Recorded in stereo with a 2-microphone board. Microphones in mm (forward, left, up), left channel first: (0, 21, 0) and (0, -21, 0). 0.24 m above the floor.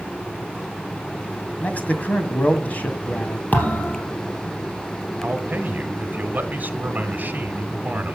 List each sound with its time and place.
1.6 s a man speaking: 40° left (ahead or behind), 2.0 m
3.5 s a thud: 45° left (ahead or behind), 3 m
5.2 s a man speaking: 45° right (ahead or behind), 1.3 m